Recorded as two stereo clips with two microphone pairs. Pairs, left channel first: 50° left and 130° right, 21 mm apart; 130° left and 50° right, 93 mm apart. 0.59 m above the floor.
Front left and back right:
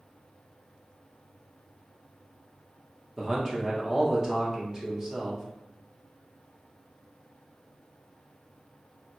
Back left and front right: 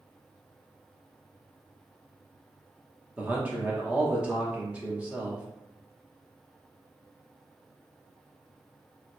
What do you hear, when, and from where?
3.2 s a man speaking: 100° right, 0.8 m